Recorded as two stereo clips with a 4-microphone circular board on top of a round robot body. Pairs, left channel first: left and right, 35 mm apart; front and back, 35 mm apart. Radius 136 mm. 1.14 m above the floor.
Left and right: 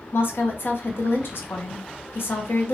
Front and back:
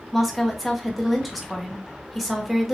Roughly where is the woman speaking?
Left.